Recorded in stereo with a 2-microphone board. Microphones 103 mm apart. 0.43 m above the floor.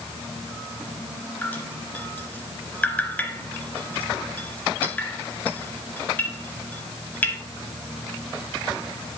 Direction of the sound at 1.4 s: 15° left (ahead or behind).